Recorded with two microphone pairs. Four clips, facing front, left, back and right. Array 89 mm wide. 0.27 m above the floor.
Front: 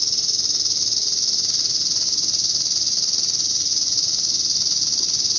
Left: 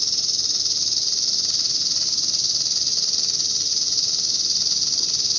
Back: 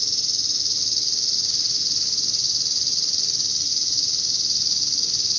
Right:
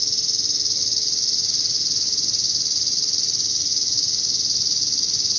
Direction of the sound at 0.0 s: 30° left.